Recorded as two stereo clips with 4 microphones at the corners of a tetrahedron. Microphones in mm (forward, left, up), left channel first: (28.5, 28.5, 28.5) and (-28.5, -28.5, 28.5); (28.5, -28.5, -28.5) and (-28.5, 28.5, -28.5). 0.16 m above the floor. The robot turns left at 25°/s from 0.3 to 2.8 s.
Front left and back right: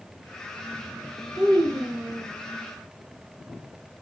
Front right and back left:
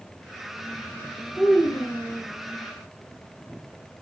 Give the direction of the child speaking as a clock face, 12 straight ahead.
5 o'clock.